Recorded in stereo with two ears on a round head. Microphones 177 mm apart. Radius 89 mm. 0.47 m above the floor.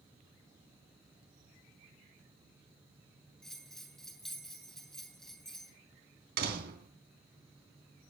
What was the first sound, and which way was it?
A bell, centre (ahead or behind).